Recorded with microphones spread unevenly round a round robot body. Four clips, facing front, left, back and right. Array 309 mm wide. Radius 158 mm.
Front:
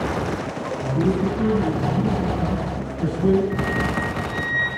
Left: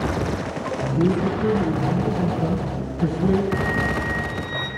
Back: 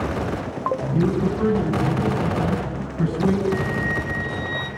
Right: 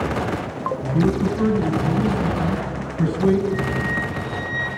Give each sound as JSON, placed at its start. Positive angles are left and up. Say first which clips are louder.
{"t": 0.9, "sound": "a man speaking", "louder": "right 1 dB, front 2 dB", "azimuth_deg": -130, "distance_m": 7.0}
{"t": 3.5, "sound": "a flute", "louder": "even, even", "azimuth_deg": -175, "distance_m": 3.5}